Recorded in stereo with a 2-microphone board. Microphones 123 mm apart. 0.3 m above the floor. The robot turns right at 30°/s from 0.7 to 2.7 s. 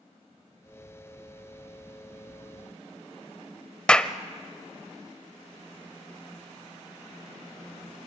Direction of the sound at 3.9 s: 10° left (ahead or behind).